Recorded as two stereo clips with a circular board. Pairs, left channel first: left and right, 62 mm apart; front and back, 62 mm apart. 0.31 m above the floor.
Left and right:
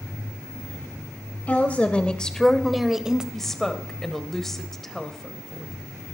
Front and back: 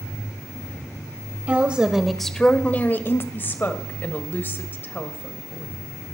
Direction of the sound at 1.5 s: 130° left.